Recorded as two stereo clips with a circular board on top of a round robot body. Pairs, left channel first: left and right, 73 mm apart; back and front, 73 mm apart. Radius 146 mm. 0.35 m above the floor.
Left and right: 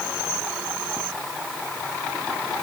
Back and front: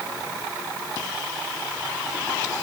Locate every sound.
Only background noise.